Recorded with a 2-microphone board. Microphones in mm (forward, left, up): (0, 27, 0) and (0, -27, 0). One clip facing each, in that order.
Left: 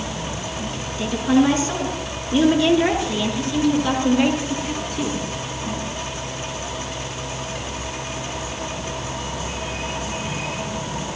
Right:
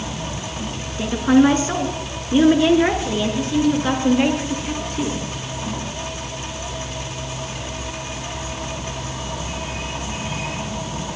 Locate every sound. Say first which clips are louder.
1.0 s a woman speaking: right 3 dB; 40° right (ahead or behind), 3.5 m; by 5.2 s 10° right (ahead or behind), 5 m